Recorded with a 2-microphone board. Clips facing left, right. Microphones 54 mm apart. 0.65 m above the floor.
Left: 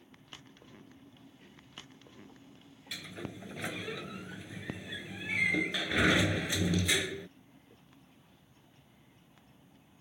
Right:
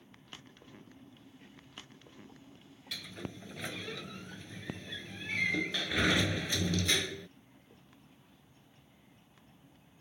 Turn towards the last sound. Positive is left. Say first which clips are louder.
# left 1 dB
turn(degrees=10)  # may be behind; listen again after turning